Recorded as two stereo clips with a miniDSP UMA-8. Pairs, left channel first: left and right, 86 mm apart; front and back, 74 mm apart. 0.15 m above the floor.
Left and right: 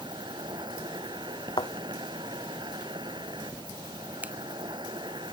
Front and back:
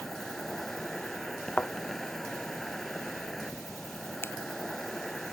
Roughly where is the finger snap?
Ahead right.